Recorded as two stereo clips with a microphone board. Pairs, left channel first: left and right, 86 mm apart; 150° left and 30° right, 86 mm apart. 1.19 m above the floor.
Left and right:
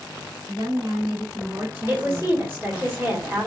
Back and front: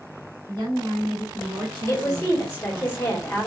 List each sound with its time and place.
0.5 s a woman speaking: 55° right, 1.1 m; by 2.9 s 40° left, 0.6 m
1.9 s a woman speaking: 155° right, 1.4 m